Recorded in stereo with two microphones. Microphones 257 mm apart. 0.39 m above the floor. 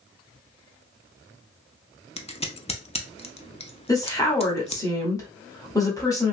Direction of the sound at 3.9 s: 15° left (ahead or behind).